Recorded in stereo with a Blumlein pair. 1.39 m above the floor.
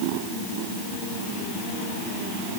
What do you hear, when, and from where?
Only background noise.